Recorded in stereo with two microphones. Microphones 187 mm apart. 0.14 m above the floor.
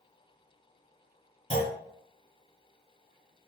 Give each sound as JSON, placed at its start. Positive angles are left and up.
{"t": 1.5, "sound": "a clunk", "side_deg": 35, "distance_m": 1.2}